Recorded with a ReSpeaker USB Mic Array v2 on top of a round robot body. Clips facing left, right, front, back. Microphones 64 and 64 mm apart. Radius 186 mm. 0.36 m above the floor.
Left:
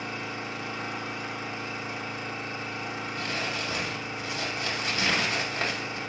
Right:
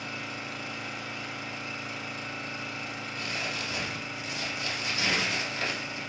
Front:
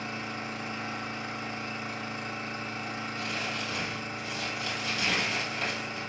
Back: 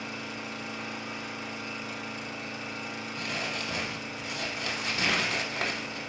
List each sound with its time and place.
0.0 s an engine running: 40° left, 1.1 m
3.2 s crumpling: 140° left, 0.7 m